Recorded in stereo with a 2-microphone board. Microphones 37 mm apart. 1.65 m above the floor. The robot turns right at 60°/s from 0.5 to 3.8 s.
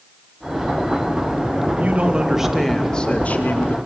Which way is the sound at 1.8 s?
50° right.